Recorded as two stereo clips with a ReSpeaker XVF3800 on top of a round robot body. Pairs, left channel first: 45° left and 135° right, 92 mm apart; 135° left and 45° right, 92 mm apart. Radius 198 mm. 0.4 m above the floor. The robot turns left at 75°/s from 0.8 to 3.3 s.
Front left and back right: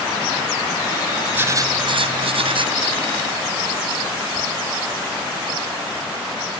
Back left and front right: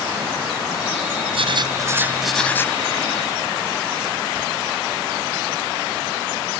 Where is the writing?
65° right; by 2.8 s 170° right.